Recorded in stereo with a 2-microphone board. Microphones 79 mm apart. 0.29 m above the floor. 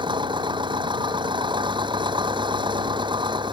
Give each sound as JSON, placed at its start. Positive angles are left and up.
{"t": 0.0, "sound": "an engine running", "side_deg": -80}